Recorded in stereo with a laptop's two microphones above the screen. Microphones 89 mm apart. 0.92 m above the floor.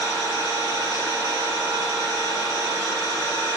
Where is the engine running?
40° right (ahead or behind), 1.3 m.